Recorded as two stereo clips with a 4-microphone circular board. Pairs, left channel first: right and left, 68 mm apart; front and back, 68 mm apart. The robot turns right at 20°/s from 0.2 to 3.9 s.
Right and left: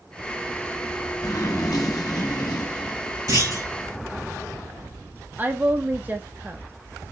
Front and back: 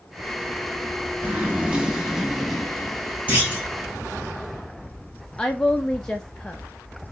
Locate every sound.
1.2 s a zipper: 115° right, 1.1 m; by 3.6 s 65° right, 1.1 m
3.3 s a clunk: 110° left, 2.5 m; by 3.7 s 120° left, 2.5 m
5.4 s a woman speaking: 70° left, 0.6 m